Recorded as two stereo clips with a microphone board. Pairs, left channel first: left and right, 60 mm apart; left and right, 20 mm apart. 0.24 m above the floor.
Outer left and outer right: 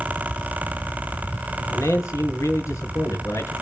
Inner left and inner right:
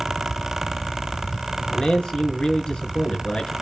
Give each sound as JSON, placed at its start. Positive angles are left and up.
{"t": 1.7, "sound": "a man speaking", "side_deg": 55, "distance_m": 3.5}